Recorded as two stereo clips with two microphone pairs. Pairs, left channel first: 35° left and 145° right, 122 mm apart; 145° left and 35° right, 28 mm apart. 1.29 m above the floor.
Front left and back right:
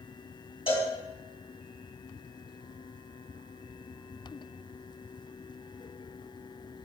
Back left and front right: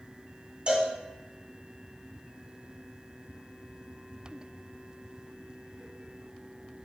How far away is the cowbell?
About 1.7 m.